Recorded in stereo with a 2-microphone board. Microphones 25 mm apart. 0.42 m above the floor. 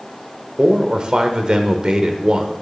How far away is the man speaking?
About 1.2 m.